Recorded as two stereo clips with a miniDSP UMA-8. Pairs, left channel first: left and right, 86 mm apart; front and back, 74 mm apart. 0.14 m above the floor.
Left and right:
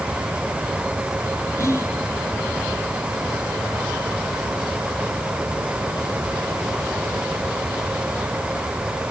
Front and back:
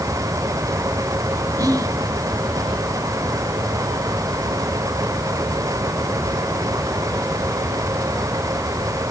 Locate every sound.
1.6 s whispering: 145° left, 4.5 m